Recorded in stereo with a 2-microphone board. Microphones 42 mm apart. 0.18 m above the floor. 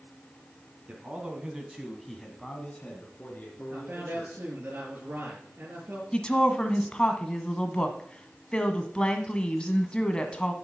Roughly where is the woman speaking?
Left.